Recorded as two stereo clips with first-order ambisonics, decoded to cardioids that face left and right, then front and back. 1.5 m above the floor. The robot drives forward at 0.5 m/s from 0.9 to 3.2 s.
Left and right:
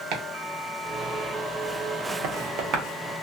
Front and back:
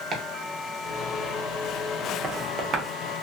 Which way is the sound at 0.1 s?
115° right.